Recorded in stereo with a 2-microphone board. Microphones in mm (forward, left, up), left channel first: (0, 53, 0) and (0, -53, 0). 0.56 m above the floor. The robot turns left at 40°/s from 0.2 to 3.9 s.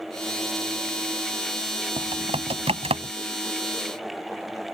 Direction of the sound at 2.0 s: 55° right (ahead or behind).